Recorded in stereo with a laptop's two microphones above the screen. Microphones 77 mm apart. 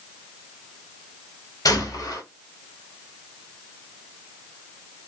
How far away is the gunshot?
About 1.1 m.